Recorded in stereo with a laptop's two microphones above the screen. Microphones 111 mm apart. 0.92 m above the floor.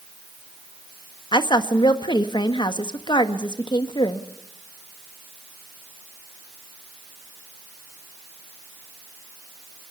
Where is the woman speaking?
45° left (ahead or behind), 1.3 m.